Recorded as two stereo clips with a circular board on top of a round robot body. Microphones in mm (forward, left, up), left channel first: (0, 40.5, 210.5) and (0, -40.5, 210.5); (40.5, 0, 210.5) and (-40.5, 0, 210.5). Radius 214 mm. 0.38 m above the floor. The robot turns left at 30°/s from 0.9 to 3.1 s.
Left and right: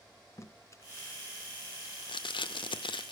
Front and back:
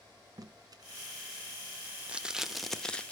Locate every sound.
0.4 s tape being pulled: 140° left, 0.7 m; by 3.1 s 75° left, 0.7 m